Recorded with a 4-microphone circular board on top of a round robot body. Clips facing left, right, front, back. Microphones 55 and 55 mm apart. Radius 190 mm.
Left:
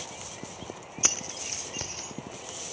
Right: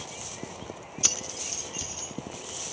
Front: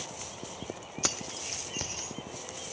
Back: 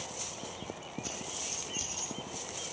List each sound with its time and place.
1.0 s keys jangling: 25° left, 1.0 m; by 2.1 s 50° left, 2 m